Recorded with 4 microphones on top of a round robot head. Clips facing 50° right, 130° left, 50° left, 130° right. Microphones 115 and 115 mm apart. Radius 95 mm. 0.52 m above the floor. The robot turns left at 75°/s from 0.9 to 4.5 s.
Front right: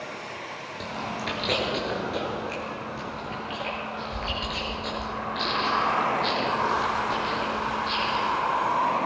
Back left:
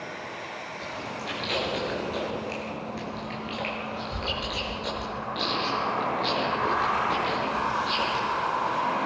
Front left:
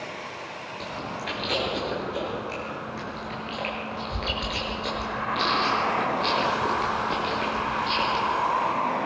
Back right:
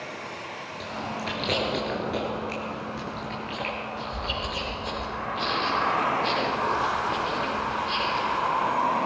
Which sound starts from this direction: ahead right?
Chewing, at 0.8 s.